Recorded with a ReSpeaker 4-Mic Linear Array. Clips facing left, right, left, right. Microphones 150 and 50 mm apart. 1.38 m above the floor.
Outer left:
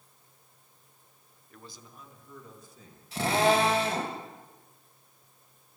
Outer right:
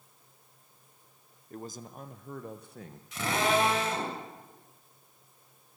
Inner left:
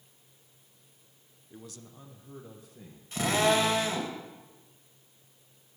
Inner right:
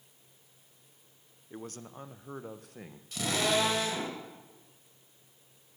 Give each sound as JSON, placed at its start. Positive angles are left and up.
{"t": 1.5, "sound": "a man speaking", "side_deg": -40, "distance_m": 0.8}
{"t": 3.1, "sound": "a drill", "side_deg": 35, "distance_m": 3.5}